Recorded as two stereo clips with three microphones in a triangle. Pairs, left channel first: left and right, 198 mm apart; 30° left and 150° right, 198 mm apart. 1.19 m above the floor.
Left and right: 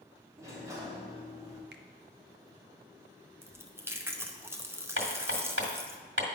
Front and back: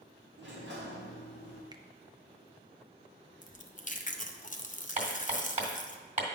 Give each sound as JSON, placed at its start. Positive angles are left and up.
{"t": 0.4, "sound": "a sliding door", "azimuth_deg": -165, "distance_m": 1.6}
{"t": 1.7, "sound": "a finger snap", "azimuth_deg": -80, "distance_m": 0.5}
{"t": 3.4, "sound": "chewing", "azimuth_deg": -15, "distance_m": 0.6}
{"t": 5.0, "sound": "hammering", "azimuth_deg": -95, "distance_m": 1.9}